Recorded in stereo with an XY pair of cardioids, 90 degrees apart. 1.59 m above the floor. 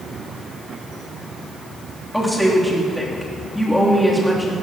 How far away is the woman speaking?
About 3 m.